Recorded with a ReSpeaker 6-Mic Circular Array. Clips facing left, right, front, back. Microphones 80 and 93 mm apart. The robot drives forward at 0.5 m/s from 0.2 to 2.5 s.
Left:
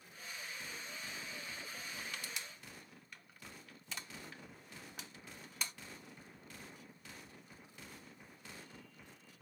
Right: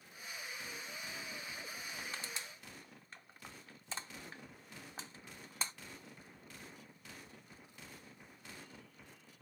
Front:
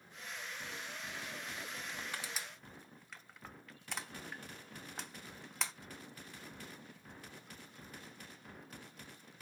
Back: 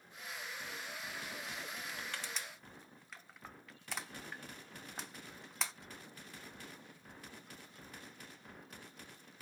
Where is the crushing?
50° right, 0.8 m; by 5.7 s 90° right, 0.7 m.